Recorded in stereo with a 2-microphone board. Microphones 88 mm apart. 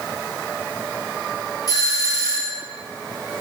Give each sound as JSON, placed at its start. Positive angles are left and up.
{"t": 1.7, "sound": "a doorbell", "side_deg": 45, "distance_m": 3.5}